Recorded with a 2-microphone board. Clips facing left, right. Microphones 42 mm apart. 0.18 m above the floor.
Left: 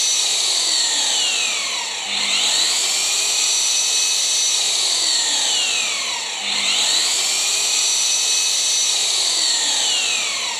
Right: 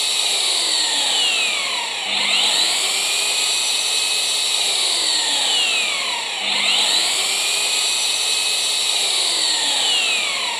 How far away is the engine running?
About 2.5 m.